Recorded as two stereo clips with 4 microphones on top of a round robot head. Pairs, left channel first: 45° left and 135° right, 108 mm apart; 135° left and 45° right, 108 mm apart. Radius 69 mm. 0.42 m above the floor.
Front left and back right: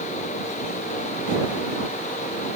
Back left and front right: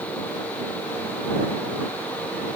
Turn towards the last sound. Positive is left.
No sound to turn to.